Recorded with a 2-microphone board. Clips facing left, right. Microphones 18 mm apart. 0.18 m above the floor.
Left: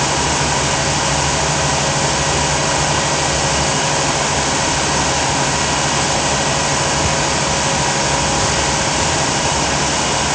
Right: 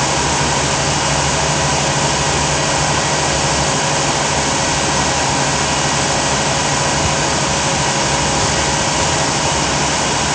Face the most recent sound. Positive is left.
No sound to turn to.